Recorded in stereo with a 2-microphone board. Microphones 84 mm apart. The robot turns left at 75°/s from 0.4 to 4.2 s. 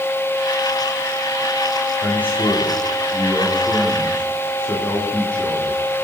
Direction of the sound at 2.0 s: 175° left.